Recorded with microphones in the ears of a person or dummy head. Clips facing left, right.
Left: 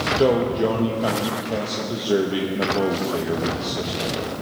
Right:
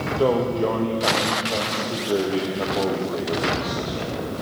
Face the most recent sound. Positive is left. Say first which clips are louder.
# left 2 dB
turn(degrees=10)  # may be behind; listen again after turning